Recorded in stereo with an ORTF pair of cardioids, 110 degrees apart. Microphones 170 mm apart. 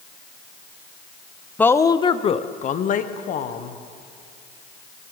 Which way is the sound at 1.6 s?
10° left.